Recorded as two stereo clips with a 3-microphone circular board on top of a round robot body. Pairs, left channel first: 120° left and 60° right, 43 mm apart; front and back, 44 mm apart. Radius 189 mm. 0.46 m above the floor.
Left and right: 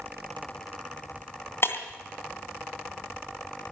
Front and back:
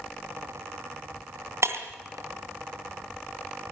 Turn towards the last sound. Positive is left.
turn(degrees=160)